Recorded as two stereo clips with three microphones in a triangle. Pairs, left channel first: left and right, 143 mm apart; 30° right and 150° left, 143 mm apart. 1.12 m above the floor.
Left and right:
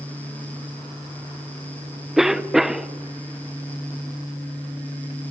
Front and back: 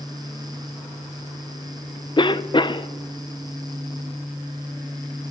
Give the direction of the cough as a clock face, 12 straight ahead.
12 o'clock.